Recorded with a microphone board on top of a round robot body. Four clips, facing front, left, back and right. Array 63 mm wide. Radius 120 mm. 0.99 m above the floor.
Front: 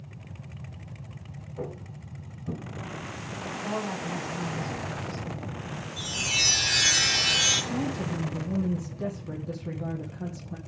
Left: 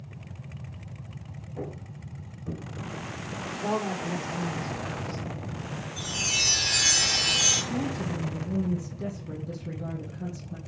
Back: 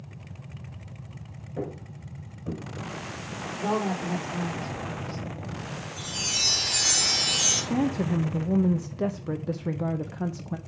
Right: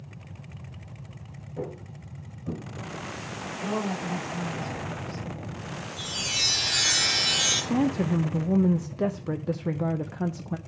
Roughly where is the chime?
Ahead.